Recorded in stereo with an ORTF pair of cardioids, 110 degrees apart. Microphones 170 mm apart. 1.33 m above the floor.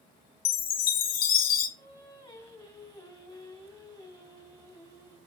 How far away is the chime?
About 0.7 m.